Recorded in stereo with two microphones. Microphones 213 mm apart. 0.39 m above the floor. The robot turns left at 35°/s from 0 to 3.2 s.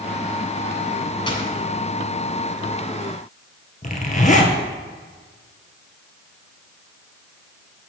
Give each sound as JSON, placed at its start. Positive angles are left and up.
{"t": 1.3, "sound": "a dropped coin", "side_deg": 20, "distance_m": 1.8}
{"t": 3.8, "sound": "a zipper", "side_deg": 40, "distance_m": 1.6}